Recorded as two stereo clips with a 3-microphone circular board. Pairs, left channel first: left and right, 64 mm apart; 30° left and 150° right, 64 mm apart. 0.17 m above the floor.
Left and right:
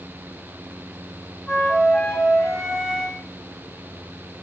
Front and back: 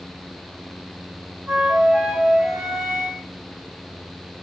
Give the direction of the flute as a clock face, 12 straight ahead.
7 o'clock.